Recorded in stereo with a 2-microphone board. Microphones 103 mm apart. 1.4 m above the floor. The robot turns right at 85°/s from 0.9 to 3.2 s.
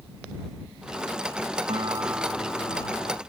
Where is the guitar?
55° right; by 3.2 s 70° left.